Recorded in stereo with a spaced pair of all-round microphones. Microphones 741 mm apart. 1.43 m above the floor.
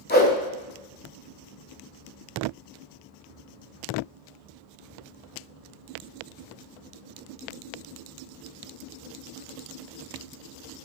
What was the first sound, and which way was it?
A whoosh, 15° left (ahead or behind).